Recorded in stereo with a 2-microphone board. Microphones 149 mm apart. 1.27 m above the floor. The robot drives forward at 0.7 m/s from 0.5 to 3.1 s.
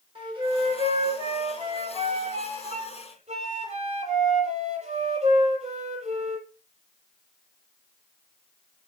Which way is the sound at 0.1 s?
35° right (ahead or behind).